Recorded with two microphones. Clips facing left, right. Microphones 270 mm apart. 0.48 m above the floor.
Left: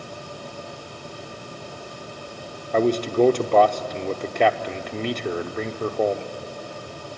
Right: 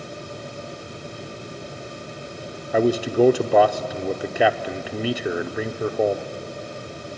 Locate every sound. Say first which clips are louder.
2.7 s a man speaking: right 1 dB; 10° right (ahead or behind), 0.7 m